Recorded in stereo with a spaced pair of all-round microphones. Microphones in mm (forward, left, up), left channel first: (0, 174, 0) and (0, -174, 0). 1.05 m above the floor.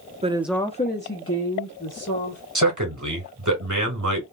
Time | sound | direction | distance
0.2 | a woman speaking | 20° right (ahead or behind) | 0.5 m
2.5 | a man speaking | 55° right (ahead or behind) | 1.7 m